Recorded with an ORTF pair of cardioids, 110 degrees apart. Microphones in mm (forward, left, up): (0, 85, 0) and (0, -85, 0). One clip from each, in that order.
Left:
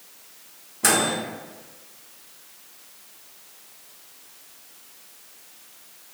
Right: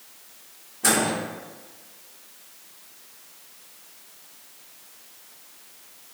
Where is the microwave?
25° left, 0.9 m.